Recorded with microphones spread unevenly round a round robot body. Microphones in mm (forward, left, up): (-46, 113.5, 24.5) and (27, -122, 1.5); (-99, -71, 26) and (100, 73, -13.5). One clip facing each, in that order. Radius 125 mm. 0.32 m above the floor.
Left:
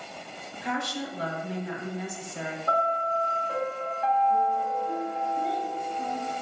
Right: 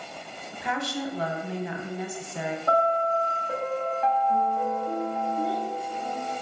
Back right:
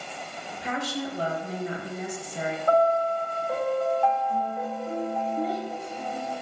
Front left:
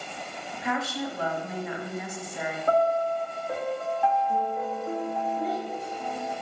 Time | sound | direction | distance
0.5 | a woman speaking | 85° right | 1.6 m
2.7 | a piano | 50° right | 1.6 m
5.4 | a child speaking | 155° right | 2 m